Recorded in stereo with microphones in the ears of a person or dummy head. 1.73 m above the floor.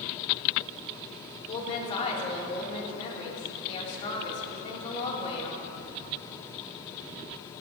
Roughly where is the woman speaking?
Left.